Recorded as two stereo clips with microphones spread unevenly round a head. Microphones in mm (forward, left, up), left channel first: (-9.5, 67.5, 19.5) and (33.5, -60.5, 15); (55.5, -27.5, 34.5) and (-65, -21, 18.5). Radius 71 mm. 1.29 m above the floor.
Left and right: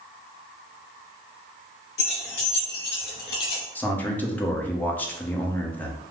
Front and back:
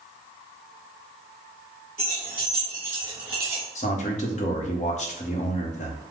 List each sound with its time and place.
2.0 s keys jangling: 100° left, 2 m; by 3.6 s 105° left, 1.3 m
3.8 s a man speaking: 30° left, 1.0 m